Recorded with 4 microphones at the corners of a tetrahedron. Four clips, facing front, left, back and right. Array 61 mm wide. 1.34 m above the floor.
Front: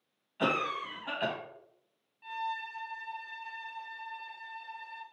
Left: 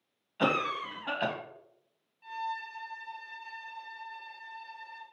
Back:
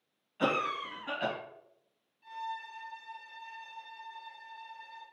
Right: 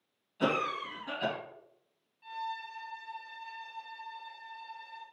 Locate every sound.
0.4 s a cough: 85° left, 1.3 m
2.2 s a violin: 15° left, 1.1 m